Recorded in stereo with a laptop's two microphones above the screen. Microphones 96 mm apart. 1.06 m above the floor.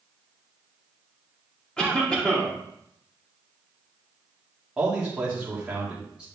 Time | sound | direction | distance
1.8 | a cough | 10° left (ahead or behind) | 2 m
4.8 | a man speaking | 10° right (ahead or behind) | 2.5 m